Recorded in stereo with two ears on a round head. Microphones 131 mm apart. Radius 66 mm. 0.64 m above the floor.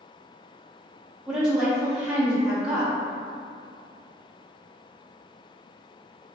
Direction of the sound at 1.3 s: 5° right (ahead or behind).